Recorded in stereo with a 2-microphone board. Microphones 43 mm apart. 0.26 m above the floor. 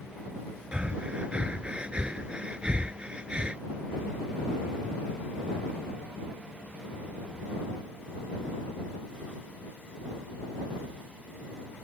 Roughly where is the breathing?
Right.